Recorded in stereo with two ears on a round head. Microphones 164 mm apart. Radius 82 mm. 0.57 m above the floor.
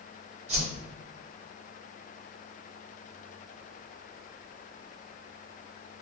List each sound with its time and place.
0.5 s a whoosh: 35° right (ahead or behind), 1.3 m